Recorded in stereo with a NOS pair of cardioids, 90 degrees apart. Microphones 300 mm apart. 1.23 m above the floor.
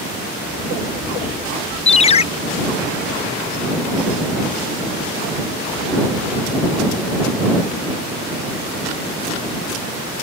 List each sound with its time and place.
1.9 s a ringtone: 20° left